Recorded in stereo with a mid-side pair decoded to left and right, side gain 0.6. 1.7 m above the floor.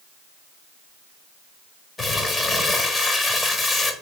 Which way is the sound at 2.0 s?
20° left.